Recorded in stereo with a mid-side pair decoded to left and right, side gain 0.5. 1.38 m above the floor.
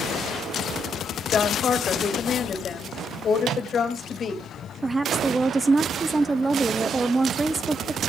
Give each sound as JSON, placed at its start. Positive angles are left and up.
{"t": 1.3, "sound": "a woman speaking", "azimuth_deg": 45, "distance_m": 2.5}
{"t": 3.4, "sound": "a microwave", "azimuth_deg": -65, "distance_m": 0.6}
{"t": 4.8, "sound": "a woman speaking", "azimuth_deg": -20, "distance_m": 0.5}